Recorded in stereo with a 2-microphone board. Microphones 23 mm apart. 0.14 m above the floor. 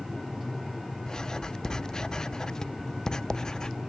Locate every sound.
1.1 s writing: 30° left (ahead or behind)